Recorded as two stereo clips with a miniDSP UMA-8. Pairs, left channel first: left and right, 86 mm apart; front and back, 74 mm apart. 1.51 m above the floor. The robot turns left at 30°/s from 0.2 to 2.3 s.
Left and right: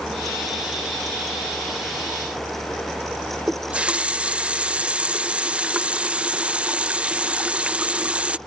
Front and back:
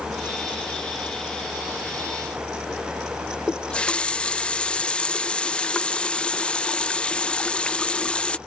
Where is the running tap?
40° right.